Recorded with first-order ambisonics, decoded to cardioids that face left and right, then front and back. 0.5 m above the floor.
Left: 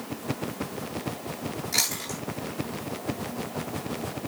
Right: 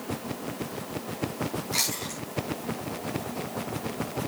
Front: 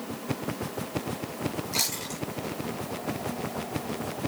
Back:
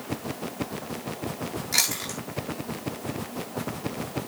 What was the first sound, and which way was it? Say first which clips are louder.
Chewing: left 3 dB, back 6 dB; 165° left.